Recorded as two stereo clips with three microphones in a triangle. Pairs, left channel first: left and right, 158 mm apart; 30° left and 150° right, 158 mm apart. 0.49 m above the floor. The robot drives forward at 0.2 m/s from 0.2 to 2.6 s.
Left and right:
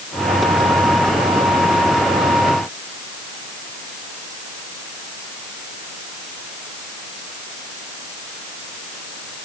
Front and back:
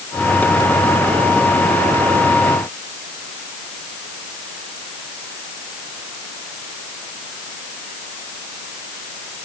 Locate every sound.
Only background noise.